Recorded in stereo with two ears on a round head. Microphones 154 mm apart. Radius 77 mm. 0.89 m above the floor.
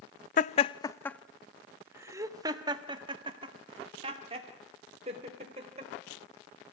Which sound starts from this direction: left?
Laughter, at 0.4 s.